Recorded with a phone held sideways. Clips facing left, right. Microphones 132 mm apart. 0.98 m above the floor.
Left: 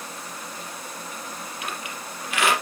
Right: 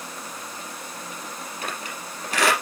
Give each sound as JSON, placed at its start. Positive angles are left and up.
{"t": 1.6, "sound": "a squeak", "side_deg": -40, "distance_m": 4.5}